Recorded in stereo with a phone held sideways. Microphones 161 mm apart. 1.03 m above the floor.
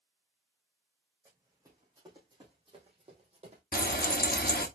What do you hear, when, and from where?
1.2 s running footsteps: 20° right (ahead or behind), 3 m; by 3.6 s 40° right (ahead or behind), 2.5 m
3.7 s frying: 65° left (ahead or behind), 1.0 m